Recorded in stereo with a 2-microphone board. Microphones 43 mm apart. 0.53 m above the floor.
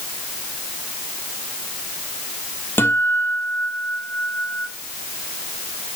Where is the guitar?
55° left (ahead or behind), 2.5 m.